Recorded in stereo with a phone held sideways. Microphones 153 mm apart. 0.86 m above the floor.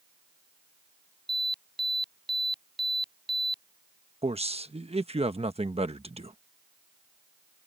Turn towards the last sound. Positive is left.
turn(degrees=-40)  # may be behind; listen again after turning